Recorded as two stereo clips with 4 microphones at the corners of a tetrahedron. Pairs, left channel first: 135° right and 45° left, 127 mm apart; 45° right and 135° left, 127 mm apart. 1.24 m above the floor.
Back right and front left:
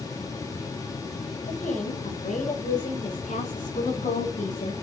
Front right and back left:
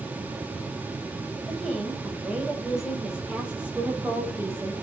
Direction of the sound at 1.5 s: 135° right.